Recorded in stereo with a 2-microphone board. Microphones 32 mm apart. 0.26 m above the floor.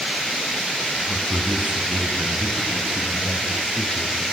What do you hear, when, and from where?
1.1 s a man speaking: 40° right (ahead or behind), 3.5 m; by 4.2 s 65° right (ahead or behind), 6.5 m